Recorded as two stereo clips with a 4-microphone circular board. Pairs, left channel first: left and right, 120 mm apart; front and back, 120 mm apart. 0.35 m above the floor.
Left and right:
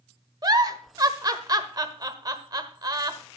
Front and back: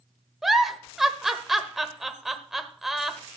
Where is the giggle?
95° right, 1.2 m.